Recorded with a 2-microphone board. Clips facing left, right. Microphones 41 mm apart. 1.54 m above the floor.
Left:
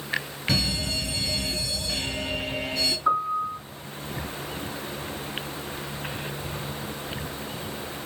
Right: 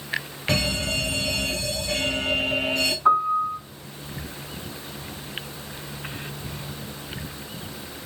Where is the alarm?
70° right (ahead or behind), 3 m.